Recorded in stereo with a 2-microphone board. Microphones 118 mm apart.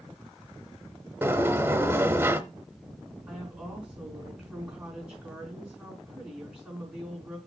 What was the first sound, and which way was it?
A sliding door, 20° right (ahead or behind).